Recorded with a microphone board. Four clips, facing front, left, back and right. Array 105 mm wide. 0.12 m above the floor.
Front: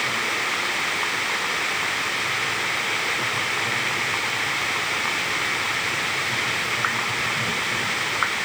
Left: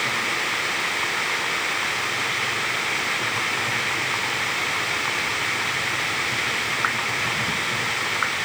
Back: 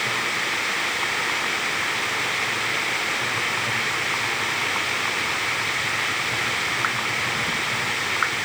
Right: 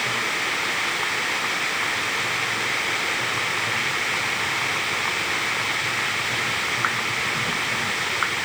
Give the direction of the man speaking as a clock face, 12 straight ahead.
No man speaking in this recording.